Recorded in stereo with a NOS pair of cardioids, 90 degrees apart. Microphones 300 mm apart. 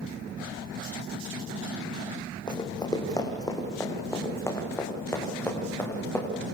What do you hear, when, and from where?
2.5 s running footsteps: 15° left, 4 m; by 6.3 s 5° left, 7 m